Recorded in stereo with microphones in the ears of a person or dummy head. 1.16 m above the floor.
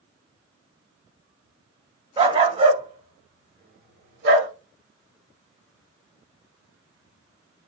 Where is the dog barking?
30° right (ahead or behind), 1.6 m; by 4.5 s 60° right (ahead or behind), 1.5 m.